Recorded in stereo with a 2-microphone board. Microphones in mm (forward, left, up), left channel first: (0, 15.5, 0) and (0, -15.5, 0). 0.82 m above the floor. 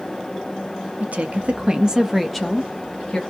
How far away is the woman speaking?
About 0.8 m.